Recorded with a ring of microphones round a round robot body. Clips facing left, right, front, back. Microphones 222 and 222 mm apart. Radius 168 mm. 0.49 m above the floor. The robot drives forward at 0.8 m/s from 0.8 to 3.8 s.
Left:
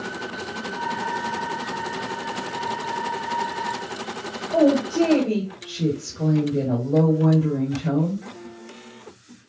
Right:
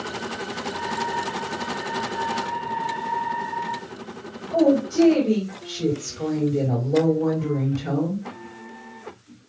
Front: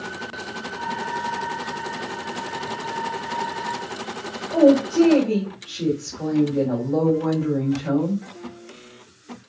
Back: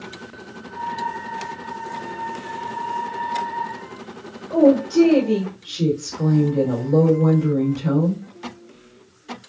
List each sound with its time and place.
4.5 s a woman speaking: 145° left, 2 m